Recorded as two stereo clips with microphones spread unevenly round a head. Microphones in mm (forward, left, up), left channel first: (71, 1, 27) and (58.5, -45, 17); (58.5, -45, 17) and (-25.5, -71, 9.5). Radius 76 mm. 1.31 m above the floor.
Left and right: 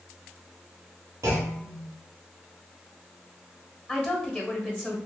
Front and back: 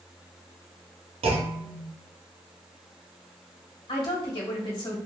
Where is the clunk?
150° right, 0.6 m.